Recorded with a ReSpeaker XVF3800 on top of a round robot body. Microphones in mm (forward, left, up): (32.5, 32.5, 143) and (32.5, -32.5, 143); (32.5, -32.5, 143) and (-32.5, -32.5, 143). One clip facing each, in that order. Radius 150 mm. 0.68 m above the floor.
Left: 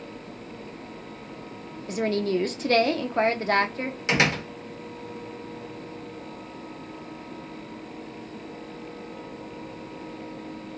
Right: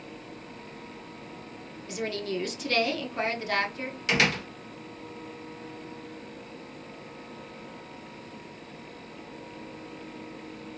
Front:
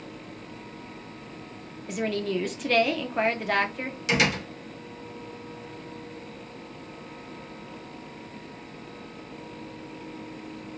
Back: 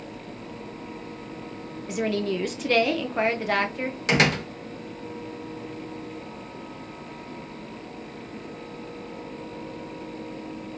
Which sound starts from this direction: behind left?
A door slam, at 4.1 s.